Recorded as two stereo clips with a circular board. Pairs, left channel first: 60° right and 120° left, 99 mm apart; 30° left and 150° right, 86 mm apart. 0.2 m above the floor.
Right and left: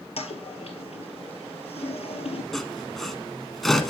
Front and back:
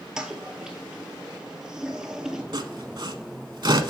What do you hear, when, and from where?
0.2 s a toilet flushing: 65° right, 1.0 m
2.5 s sawing: 145° right, 0.8 m